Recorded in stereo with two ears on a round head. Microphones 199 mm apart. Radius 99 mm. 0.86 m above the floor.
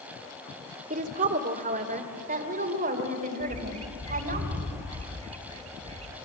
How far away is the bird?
About 2.5 m.